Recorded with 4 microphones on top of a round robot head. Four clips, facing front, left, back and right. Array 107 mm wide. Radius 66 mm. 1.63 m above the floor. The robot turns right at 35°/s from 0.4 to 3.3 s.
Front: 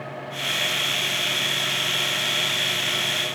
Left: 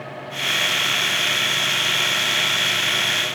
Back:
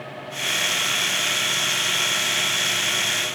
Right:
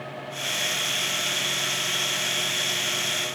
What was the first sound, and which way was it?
Only background noise.